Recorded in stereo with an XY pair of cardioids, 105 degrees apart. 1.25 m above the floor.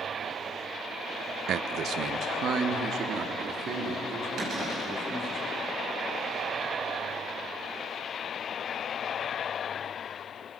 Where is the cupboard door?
60° right, 6 m.